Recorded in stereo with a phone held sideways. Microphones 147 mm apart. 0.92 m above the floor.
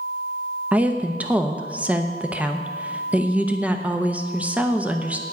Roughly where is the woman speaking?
Centre.